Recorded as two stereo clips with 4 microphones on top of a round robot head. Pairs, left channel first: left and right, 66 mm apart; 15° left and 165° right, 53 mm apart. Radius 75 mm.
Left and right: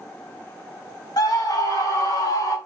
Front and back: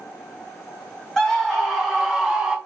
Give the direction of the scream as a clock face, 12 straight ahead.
9 o'clock.